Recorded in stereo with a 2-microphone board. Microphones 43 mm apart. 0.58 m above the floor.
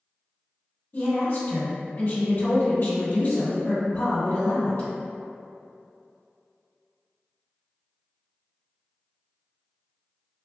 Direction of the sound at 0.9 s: 50° left (ahead or behind).